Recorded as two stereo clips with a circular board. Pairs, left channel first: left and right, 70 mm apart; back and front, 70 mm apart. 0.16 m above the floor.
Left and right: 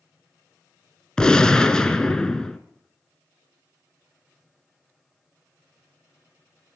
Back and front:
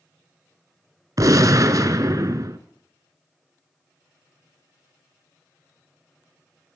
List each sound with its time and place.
1.2 s a gunshot: 15° left, 0.8 m